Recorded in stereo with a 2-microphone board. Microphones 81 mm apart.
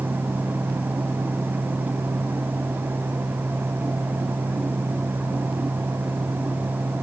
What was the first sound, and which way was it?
Only background noise.